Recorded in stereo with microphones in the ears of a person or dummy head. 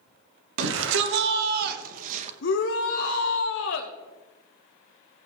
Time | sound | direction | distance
0.6 | a shout | 80° right | 1.7 m
2.4 | a shout | 65° left (ahead or behind) | 1.0 m